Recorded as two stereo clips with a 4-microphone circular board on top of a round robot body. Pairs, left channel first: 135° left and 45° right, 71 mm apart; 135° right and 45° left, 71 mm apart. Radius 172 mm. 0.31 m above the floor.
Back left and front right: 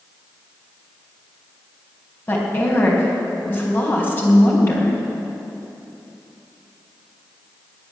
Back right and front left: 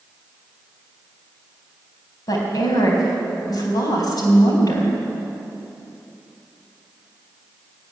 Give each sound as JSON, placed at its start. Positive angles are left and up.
{"t": 2.3, "sound": "a woman speaking", "azimuth_deg": -165, "distance_m": 4.0}